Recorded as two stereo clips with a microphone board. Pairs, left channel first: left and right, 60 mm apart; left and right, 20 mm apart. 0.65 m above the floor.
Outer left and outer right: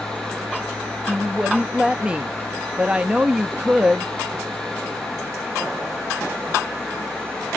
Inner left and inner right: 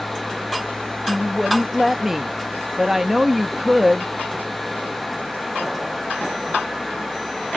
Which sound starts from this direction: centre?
A woman speaking, at 1.1 s.